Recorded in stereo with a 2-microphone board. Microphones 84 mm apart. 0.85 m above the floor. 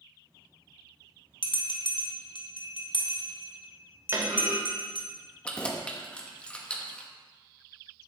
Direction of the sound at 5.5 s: 10° left (ahead or behind).